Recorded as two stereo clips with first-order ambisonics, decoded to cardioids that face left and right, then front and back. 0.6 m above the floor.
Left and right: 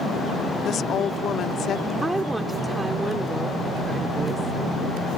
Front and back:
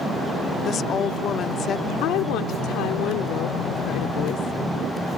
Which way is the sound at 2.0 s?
10° right.